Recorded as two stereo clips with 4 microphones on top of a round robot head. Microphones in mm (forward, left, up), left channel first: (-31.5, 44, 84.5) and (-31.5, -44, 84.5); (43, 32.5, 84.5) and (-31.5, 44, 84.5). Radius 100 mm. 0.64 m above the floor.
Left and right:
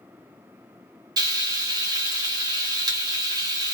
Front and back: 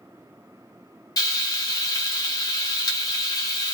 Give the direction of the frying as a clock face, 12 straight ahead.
2 o'clock.